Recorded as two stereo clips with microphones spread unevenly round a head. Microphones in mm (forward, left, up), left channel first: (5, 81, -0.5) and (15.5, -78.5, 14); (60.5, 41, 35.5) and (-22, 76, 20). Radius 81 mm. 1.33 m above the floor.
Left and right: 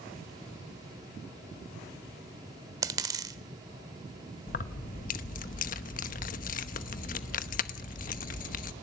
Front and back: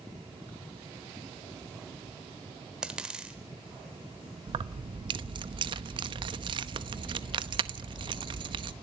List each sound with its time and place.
2.8 s a dropped coin: 105° right, 1.1 m
4.5 s keys jangling: 130° left, 0.9 m